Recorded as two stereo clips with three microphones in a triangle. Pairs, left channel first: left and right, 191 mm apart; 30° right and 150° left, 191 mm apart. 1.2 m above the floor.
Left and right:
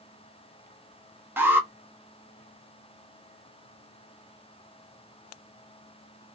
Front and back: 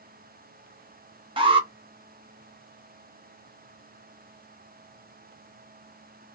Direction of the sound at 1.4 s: 160° right.